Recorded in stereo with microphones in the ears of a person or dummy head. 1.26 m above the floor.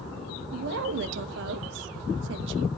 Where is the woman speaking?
75° right (ahead or behind), 0.9 m.